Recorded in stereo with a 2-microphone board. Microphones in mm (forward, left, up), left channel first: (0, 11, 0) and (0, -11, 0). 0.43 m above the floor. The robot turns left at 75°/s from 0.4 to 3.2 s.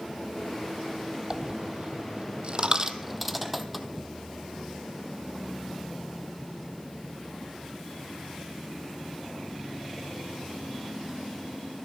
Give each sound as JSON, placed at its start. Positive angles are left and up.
{"t": 1.3, "sound": "a dropped coin", "side_deg": -30, "distance_m": 0.7}